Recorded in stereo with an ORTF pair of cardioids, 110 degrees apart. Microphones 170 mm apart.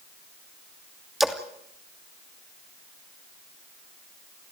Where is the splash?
Straight ahead, 2.5 m.